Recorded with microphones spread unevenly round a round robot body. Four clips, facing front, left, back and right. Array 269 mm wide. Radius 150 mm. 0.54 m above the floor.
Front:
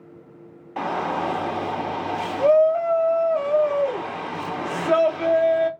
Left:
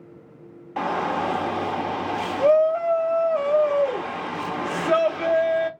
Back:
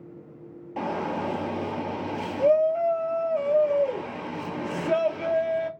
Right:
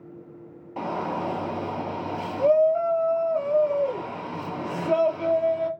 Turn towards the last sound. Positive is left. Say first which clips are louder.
# left 4 dB, front 4 dB
turn(degrees=0)